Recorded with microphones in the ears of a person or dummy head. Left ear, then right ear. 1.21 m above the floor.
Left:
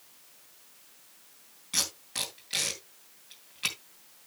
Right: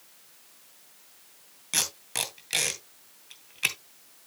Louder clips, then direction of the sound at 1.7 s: Right 2 dB; 30° right (ahead or behind).